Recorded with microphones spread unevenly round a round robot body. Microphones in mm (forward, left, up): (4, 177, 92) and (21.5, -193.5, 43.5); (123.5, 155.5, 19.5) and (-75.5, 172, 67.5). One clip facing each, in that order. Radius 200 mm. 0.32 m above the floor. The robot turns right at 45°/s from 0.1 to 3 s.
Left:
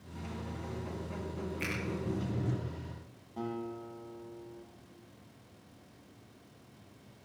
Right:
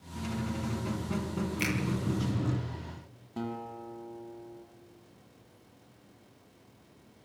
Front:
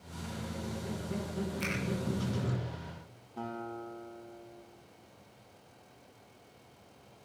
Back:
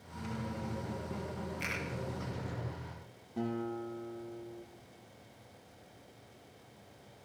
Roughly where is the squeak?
Behind right.